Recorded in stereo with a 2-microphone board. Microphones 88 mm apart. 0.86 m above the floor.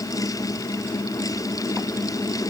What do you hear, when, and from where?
Only background noise.